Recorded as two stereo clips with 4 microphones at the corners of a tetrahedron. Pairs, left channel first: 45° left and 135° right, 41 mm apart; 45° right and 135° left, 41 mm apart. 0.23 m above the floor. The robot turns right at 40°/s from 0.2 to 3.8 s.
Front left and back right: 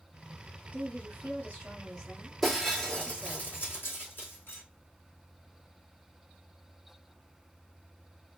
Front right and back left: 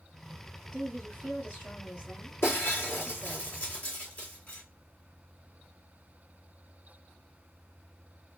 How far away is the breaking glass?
About 2 m.